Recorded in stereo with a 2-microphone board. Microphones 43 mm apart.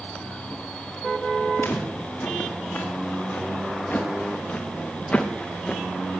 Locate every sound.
1.6 s footsteps: 50° left (ahead or behind), 5.5 m; by 5.8 s 10° left (ahead or behind), 2 m